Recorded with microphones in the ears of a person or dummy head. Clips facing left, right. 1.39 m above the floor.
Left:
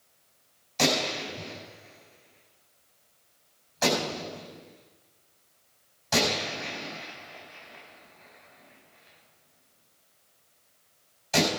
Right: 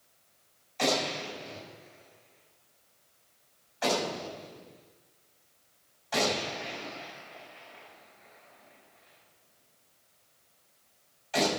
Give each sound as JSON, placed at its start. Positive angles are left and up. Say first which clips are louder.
{"t": 0.8, "sound": "a gunshot", "louder": "left 2 dB", "side_deg": 50, "distance_m": 4.5}